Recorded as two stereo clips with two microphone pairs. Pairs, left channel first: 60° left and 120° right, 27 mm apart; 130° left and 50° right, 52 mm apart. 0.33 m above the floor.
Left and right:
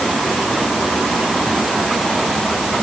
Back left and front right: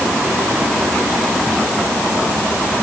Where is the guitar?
I don't hear a guitar.